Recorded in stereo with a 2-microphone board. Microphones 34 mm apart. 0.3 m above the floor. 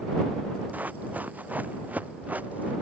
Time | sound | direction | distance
0.7 | running footsteps | 55° right (ahead or behind) | ?